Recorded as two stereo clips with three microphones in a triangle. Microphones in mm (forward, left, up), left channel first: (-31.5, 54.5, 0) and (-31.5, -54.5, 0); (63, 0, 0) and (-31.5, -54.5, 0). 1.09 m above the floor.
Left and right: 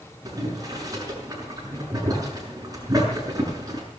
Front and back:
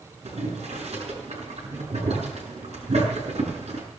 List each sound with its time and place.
0.2 s boiling: 145° right, 6.5 m